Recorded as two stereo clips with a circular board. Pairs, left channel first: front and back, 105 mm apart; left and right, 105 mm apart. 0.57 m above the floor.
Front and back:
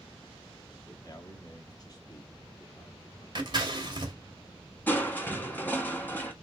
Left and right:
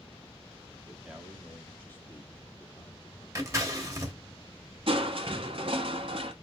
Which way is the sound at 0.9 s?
20° right.